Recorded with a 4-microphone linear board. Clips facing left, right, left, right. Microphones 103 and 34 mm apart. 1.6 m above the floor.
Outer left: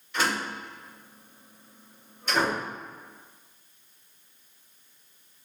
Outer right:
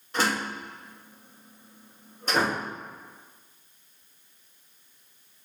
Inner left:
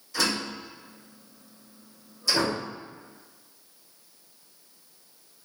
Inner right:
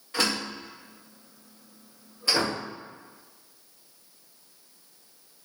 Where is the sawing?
I don't hear sawing.